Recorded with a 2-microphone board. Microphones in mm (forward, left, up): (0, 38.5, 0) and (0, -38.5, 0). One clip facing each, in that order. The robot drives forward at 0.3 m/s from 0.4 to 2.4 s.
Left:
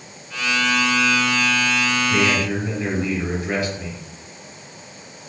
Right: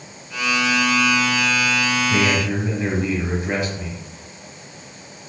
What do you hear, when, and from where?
2.1 s a man speaking: 20° right (ahead or behind), 1.3 m